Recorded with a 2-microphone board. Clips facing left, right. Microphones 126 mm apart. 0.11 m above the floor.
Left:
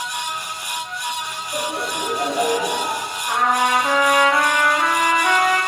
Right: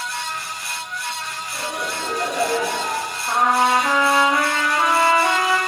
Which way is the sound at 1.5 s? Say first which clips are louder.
Left 3 dB; 35° left (ahead or behind).